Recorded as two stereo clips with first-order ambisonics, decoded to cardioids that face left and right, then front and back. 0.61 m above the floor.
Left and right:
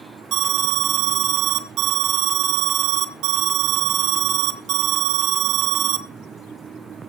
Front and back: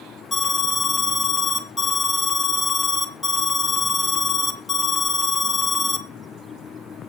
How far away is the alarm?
About 1.4 m.